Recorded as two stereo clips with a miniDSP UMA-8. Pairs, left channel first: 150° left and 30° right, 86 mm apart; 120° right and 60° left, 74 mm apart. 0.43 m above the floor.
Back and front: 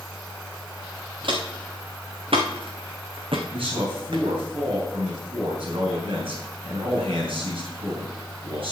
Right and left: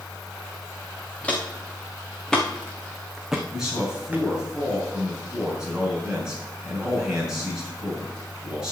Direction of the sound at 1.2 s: 45° right.